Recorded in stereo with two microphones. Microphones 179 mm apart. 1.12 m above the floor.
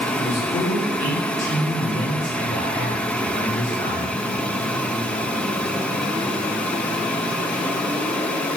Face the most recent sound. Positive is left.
turn(degrees=35)  # may be behind; listen again after turning